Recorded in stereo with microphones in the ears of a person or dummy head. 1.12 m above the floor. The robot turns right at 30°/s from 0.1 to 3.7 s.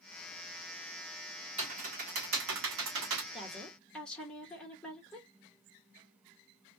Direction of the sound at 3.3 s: 5° right (ahead or behind).